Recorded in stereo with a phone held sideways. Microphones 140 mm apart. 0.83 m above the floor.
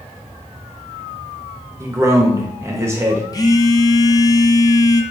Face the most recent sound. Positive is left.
turn(degrees=25)  # may be behind; listen again after turning